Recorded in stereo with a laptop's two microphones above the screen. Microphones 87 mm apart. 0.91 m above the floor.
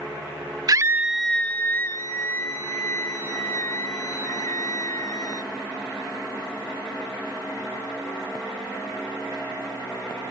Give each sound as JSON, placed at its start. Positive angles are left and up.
{"t": 0.7, "sound": "a scream", "side_deg": -45}